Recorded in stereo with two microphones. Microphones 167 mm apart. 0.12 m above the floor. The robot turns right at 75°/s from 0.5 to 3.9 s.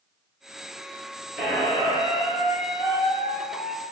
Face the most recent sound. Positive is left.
turn(degrees=-175)